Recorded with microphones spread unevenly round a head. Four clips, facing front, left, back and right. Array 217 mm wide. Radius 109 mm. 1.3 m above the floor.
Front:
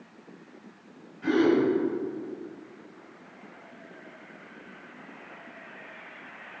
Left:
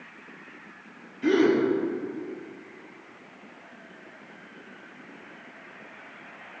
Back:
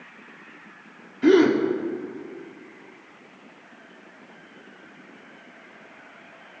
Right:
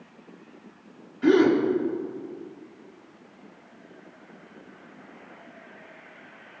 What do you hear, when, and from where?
1.2 s a gasp: 165° right, 4 m